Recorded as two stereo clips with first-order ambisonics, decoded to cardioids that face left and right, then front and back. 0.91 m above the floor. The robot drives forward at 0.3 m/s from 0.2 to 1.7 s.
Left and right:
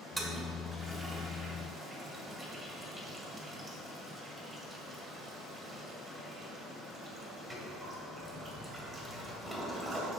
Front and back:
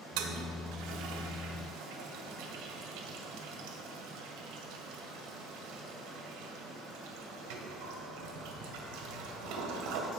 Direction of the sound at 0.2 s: Straight behind.